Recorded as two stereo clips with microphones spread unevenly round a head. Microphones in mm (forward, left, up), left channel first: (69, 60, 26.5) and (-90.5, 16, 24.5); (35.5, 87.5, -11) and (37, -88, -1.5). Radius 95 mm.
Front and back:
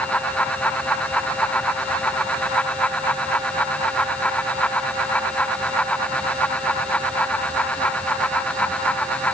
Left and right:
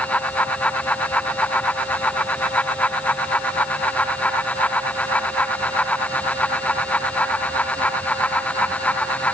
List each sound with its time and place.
Only background noise.